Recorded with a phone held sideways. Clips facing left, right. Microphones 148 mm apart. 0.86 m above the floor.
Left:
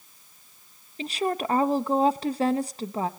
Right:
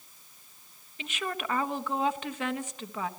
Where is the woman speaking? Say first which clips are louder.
Left 8 dB; 35° left (ahead or behind), 1.1 m.